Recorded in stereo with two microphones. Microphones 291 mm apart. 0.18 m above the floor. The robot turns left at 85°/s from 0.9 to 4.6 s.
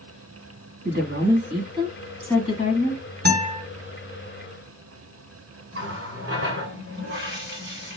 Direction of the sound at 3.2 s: 105° right.